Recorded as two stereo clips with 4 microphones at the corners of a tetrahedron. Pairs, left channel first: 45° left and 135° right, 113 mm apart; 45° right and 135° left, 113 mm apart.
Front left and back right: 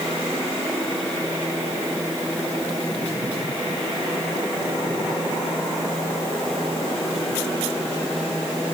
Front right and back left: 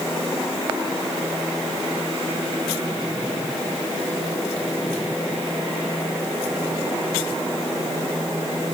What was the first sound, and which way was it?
Only background noise.